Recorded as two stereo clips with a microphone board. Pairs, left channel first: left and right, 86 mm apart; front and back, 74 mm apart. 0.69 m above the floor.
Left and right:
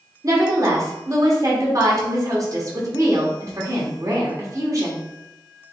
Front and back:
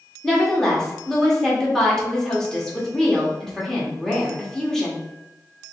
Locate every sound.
0.2 s a woman speaking: 80° right, 1.2 m